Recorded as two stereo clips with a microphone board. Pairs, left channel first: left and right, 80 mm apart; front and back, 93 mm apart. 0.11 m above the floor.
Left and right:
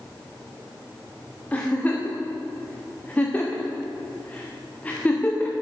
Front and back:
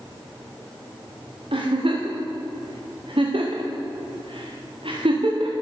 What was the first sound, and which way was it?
A giggle, 160° left.